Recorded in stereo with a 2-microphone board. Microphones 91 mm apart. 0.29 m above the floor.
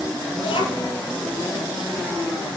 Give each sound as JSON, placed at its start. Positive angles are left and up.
{"t": 0.4, "sound": "a child speaking", "side_deg": 70, "distance_m": 4.5}